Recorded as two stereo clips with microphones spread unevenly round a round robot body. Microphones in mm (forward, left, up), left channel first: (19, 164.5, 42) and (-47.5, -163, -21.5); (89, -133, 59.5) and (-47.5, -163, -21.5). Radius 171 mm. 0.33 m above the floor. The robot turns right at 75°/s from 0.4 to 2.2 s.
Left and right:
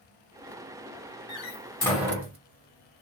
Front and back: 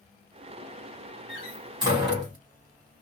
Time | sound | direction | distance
1.3 | a door slam | 125° left | 1.4 m